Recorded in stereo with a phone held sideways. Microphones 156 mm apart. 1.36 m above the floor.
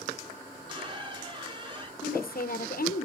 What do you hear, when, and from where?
0.5 s a squeak: 30° right (ahead or behind), 4 m
2.0 s a woman speaking: 70° left (ahead or behind), 0.8 m